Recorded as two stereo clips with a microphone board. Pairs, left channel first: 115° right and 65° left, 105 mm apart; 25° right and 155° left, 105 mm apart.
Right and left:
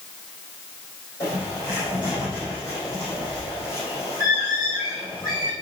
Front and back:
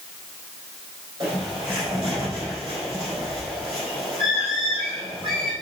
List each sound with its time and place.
1.2 s a bird: 170° right, 4.5 m